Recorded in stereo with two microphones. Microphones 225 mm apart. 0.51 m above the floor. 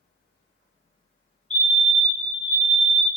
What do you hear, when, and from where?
1.5 s a fire alarm: 5° left (ahead or behind), 2 m